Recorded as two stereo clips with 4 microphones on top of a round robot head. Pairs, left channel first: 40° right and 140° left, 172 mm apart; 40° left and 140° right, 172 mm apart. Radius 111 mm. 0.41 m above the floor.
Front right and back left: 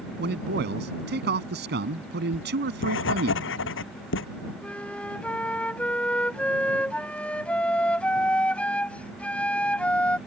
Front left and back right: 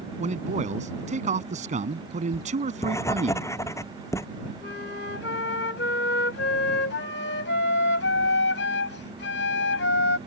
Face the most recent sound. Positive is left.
turn(degrees=45)